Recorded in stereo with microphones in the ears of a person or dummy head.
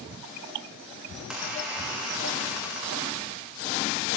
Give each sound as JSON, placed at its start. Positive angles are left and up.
{"t": 1.1, "sound": "a squeak", "side_deg": 0, "distance_m": 1.4}